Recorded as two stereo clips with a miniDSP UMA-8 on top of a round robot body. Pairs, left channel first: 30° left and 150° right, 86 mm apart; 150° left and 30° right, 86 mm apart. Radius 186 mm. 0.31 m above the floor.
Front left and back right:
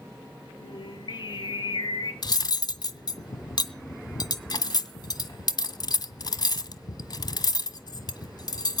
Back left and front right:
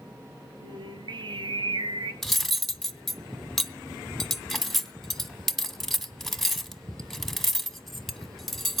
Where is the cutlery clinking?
60° left, 1.3 m.